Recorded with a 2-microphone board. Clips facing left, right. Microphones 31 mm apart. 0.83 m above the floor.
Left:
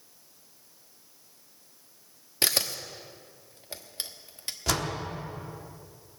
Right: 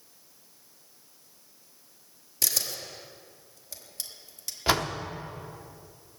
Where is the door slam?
30° right (ahead or behind), 1.1 m.